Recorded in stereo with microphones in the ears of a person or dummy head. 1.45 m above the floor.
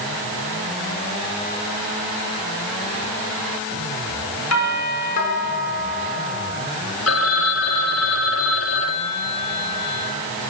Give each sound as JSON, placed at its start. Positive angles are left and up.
{"t": 4.5, "sound": "a doorbell", "side_deg": 85, "distance_m": 6.5}
{"t": 7.1, "sound": "a phone ringing", "side_deg": 70, "distance_m": 1.8}